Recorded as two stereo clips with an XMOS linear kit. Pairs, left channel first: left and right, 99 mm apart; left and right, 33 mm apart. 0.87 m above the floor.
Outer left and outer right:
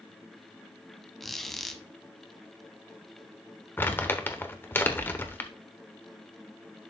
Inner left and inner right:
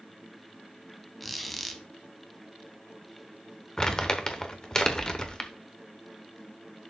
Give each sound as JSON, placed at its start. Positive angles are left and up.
{"t": 1.2, "sound": "a squeak", "side_deg": 0, "distance_m": 0.9}
{"t": 3.8, "sound": "crumpling", "side_deg": 20, "distance_m": 1.1}